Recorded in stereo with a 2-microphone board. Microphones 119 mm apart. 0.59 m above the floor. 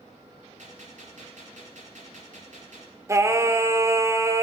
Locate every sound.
0.6 s a gunshot: 85° right, 4.5 m
3.1 s singing: 25° right (ahead or behind), 0.9 m